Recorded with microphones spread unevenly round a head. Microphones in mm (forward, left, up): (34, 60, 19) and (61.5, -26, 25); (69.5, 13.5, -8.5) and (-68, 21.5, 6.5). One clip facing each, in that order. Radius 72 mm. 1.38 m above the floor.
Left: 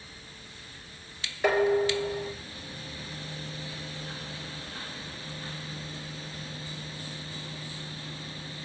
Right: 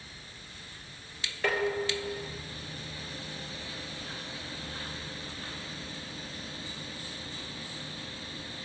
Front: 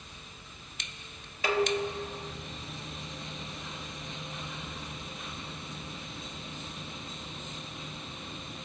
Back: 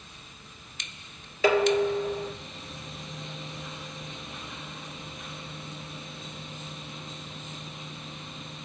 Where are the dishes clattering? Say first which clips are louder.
Left 6 dB, back 7 dB; 170° right, 2.5 m.